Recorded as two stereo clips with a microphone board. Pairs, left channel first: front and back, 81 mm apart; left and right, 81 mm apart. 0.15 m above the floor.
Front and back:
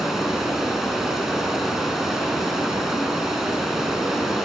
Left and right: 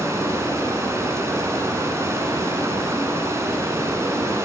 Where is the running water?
95° right, 0.9 m.